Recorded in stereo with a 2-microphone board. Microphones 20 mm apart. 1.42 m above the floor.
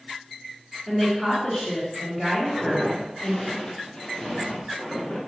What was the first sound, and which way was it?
A woman speaking, 5° left (ahead or behind).